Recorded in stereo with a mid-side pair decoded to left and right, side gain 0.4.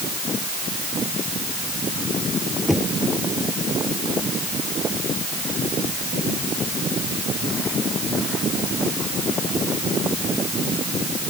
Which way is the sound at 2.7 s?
5° left.